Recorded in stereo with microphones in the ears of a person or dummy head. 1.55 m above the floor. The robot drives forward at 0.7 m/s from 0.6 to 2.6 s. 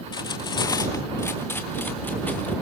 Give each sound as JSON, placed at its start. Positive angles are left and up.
{"t": 0.1, "sound": "cutlery clinking", "side_deg": 20, "distance_m": 0.9}